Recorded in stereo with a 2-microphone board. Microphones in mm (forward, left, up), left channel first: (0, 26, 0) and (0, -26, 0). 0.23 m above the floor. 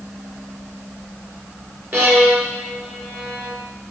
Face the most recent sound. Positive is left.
turn(degrees=-45)  # may be behind; listen again after turning